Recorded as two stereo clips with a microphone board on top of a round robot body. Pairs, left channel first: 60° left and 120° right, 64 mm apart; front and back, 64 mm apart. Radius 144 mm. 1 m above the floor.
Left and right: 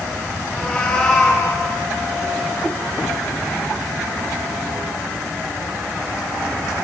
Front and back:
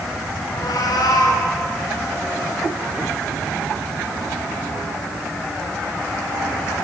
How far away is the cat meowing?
About 3 m.